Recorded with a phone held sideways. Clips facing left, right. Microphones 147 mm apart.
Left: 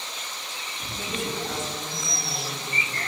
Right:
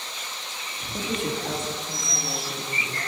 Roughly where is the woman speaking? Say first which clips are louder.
Right 3 dB; right.